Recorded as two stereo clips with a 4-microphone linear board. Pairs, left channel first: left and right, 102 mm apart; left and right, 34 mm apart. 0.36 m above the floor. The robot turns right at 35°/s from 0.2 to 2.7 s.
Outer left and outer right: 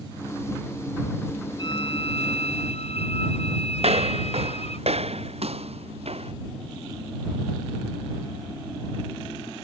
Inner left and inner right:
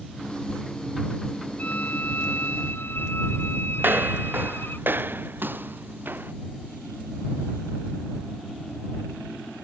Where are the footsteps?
85° right; by 6.3 s 80° right.